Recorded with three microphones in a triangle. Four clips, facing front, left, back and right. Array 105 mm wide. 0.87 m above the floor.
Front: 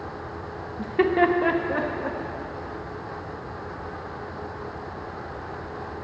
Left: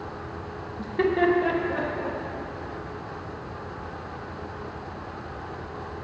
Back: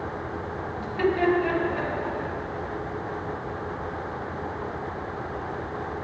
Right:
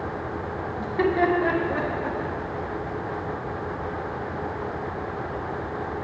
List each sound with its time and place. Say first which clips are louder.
0.8 s laughter: even, front 3 dB; 10° left, 0.8 m; by 2.2 s 30° right, 1.5 m